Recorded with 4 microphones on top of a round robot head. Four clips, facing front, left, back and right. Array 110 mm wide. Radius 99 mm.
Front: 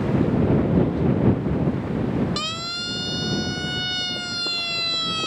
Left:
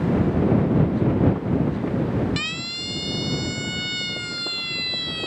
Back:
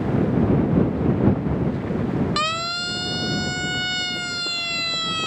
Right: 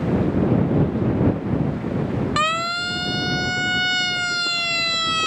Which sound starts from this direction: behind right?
A siren, at 2.4 s.